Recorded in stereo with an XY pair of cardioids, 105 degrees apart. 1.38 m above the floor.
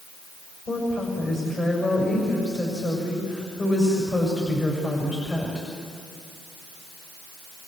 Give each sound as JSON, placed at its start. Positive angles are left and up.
{"t": 0.7, "sound": "a woman speaking", "azimuth_deg": 45, "distance_m": 6.5}